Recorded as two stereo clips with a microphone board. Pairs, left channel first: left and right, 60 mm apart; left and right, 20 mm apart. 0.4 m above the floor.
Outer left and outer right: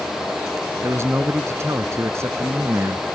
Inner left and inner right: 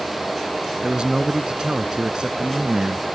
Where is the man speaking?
50° right (ahead or behind).